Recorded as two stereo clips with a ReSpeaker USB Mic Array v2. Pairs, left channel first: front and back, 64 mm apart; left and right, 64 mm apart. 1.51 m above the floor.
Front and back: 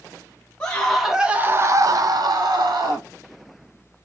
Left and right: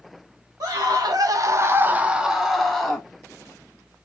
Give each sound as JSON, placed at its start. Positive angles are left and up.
{"t": 0.6, "sound": "a scream", "azimuth_deg": -75, "distance_m": 0.7}